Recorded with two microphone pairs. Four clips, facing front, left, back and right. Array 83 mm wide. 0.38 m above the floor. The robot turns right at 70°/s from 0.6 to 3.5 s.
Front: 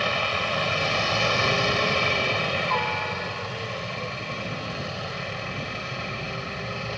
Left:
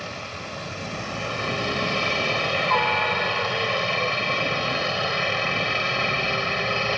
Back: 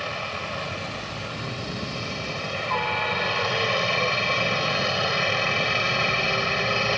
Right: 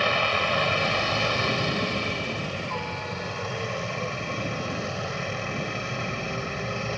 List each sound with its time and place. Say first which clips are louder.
0.0 s a helicopter: right 10 dB, front 5 dB; 65° right; by 7.0 s 140° left